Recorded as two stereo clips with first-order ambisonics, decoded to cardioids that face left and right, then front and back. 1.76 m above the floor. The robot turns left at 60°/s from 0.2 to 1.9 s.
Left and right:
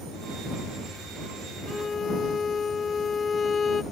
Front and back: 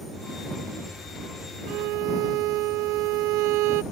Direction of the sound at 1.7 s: 175° left.